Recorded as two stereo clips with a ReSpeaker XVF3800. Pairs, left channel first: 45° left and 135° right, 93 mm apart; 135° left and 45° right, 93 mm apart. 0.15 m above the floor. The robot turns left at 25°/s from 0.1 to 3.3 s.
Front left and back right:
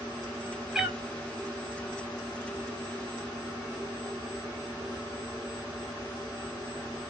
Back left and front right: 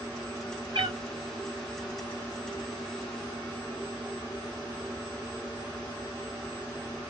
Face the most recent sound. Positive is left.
turn(degrees=-115)